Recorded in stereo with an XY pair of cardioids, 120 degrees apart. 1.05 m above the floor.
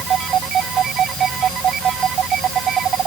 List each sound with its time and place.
Only background noise.